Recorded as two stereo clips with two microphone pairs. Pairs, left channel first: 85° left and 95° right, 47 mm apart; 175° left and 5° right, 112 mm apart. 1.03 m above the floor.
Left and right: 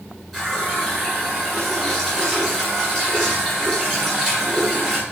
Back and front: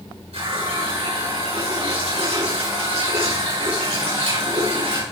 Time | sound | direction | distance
0.3 | a running tap | 5° right | 9 m